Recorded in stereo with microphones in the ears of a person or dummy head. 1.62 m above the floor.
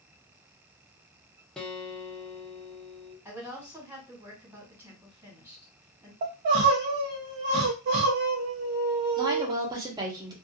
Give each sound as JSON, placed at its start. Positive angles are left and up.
{"t": 1.6, "sound": "a guitar", "side_deg": 0, "distance_m": 0.7}
{"t": 3.2, "sound": "a woman speaking", "side_deg": -15, "distance_m": 1.6}
{"t": 6.2, "sound": "crying", "side_deg": -35, "distance_m": 0.7}
{"t": 9.2, "sound": "a woman speaking", "side_deg": -25, "distance_m": 1.1}